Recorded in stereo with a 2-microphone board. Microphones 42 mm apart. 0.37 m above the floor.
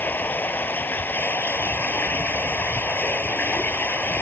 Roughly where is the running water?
Left.